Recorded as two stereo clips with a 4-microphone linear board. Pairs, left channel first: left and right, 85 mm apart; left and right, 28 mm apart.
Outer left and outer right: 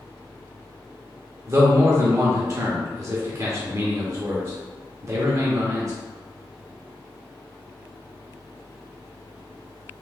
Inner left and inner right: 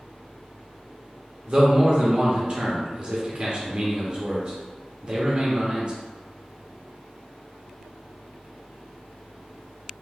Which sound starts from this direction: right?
A man speaking, at 1.5 s.